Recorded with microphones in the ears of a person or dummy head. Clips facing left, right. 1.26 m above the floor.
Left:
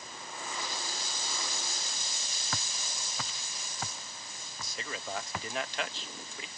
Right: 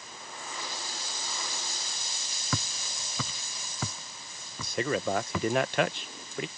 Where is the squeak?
I don't hear a squeak.